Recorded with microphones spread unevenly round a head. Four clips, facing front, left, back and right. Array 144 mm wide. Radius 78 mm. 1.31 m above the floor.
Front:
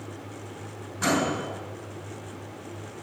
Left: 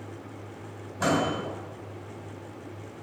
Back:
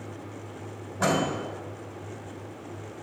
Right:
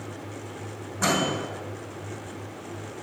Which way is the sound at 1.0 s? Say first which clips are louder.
Even, even; 165° left.